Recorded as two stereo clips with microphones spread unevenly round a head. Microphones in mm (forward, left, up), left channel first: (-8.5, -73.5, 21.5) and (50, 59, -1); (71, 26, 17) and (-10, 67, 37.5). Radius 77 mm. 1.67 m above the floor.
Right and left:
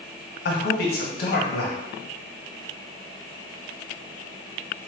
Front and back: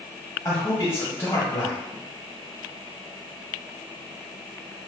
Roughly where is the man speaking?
Right.